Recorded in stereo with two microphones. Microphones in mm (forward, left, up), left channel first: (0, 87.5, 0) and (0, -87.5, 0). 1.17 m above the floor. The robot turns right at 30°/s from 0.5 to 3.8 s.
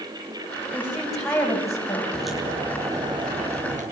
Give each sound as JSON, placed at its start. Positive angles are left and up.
{"t": 0.7, "sound": "a woman speaking", "azimuth_deg": -10, "distance_m": 8.5}
{"t": 2.1, "sound": "a crack", "azimuth_deg": 175, "distance_m": 9.0}